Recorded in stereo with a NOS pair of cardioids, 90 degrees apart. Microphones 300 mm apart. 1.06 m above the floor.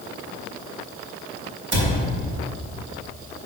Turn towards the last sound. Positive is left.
turn(degrees=-45)